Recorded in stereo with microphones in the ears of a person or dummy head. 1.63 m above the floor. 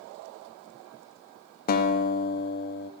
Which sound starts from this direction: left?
A guitar, at 1.7 s.